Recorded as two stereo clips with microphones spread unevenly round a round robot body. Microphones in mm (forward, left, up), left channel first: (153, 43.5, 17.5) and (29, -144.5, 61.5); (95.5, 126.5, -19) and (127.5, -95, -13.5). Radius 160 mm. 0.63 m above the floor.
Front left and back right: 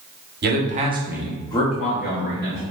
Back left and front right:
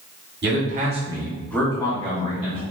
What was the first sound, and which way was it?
A man speaking, 90° right.